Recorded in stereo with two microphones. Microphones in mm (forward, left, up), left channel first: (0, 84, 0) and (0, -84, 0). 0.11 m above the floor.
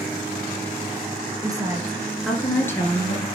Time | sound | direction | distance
1.4 | a woman speaking | 25° right (ahead or behind) | 1.8 m